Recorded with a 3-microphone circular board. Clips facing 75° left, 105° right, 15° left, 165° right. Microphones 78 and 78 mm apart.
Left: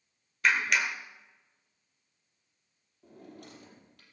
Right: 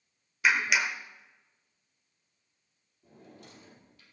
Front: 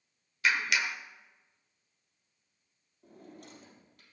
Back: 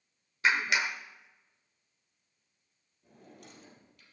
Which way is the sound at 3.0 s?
60° left.